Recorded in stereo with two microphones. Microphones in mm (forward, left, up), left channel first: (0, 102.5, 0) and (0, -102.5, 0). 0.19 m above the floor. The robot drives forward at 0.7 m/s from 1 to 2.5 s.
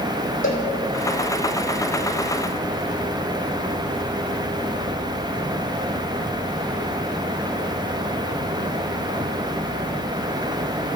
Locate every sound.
0.4 s a cowbell: 80° left, 4 m